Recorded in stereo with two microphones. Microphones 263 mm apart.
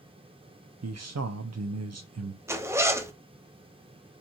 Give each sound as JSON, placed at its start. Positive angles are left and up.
{"t": 0.8, "sound": "a man speaking", "side_deg": -65, "distance_m": 0.5}
{"t": 2.5, "sound": "a zipper", "side_deg": -10, "distance_m": 0.7}